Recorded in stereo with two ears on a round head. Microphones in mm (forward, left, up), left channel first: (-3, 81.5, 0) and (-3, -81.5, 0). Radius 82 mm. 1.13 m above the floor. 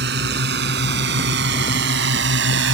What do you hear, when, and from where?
0.0 s a drone: 60° right (ahead or behind); by 2.8 s 70° right (ahead or behind)